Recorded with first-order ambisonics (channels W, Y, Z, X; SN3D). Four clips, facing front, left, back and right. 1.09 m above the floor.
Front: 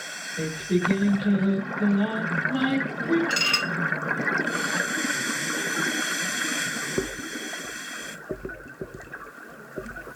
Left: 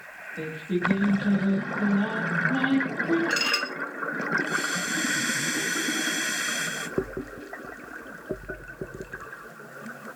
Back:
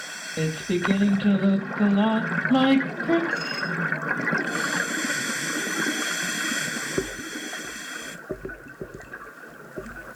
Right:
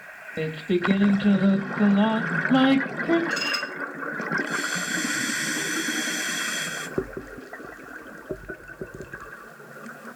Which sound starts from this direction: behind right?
Singing, at 0.4 s.